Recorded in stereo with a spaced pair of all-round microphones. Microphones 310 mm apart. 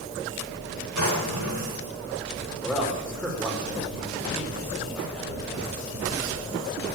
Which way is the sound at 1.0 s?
80° left.